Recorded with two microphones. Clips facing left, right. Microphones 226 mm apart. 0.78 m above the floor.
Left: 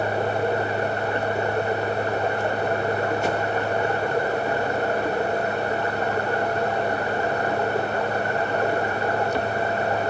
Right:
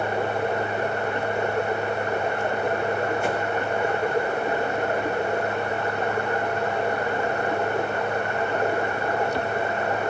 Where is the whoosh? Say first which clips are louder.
Left 1 dB; 40° left (ahead or behind), 6 m.